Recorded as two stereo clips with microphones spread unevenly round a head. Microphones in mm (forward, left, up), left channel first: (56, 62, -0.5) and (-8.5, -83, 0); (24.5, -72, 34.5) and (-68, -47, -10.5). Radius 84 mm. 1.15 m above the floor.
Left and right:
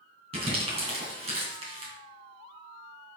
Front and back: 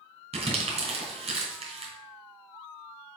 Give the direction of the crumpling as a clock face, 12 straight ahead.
6 o'clock.